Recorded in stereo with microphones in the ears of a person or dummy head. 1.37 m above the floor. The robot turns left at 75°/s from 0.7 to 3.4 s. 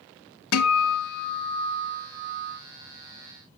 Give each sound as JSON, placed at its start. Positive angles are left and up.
{"t": 0.5, "sound": "a guitar", "azimuth_deg": 90, "distance_m": 1.2}